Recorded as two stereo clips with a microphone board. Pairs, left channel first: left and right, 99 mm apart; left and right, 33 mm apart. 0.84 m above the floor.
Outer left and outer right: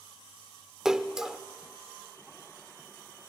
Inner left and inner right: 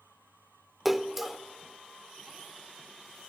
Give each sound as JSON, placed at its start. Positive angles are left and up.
{"t": 0.8, "sound": "a splash", "side_deg": -5, "distance_m": 0.7}